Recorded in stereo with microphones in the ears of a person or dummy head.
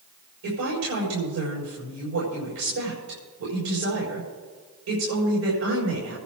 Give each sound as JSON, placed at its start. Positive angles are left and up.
{"t": 0.4, "sound": "a woman speaking", "side_deg": -85, "distance_m": 4.0}